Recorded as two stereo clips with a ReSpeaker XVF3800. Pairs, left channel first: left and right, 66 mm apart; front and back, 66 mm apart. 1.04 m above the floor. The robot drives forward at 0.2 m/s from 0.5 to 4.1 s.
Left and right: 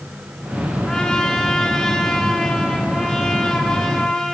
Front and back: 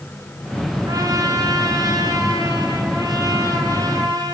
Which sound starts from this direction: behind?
A trumpet, at 0.9 s.